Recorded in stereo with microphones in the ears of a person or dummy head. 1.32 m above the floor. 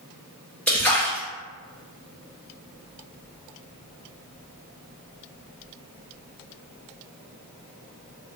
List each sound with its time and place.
0.7 s a splash: 5° left (ahead or behind), 0.7 m